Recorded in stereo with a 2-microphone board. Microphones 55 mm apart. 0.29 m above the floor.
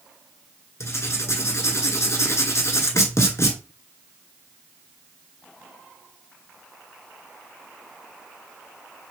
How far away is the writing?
About 1.0 m.